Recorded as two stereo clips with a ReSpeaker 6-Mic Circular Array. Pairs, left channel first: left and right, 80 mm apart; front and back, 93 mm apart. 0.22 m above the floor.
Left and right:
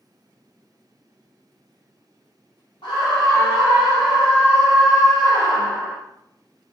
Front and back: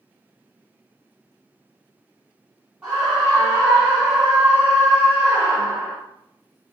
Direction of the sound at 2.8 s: 95° left.